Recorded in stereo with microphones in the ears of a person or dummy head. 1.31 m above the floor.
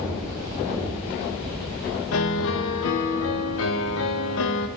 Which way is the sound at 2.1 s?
75° left (ahead or behind).